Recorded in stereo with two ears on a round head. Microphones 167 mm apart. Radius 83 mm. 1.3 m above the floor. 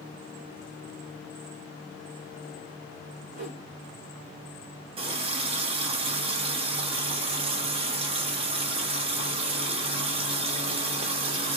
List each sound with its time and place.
3.3 s a whoosh: 45° right (ahead or behind), 1.9 m
5.0 s a running tap: 30° right (ahead or behind), 0.6 m